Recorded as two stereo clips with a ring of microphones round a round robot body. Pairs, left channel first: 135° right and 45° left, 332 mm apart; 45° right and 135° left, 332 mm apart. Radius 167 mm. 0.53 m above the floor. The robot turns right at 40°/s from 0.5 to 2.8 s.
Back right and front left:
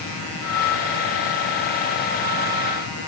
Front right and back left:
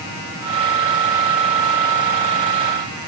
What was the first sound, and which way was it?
Only background noise.